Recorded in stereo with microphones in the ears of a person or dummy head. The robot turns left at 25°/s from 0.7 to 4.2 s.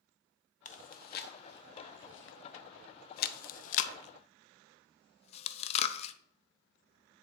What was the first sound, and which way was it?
Chewing, 45° left (ahead or behind).